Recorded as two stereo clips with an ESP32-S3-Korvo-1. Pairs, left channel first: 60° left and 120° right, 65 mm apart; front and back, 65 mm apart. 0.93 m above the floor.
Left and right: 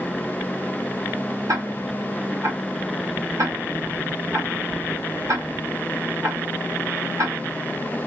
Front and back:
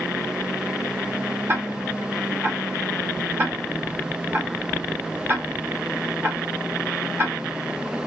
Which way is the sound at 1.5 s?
135° right.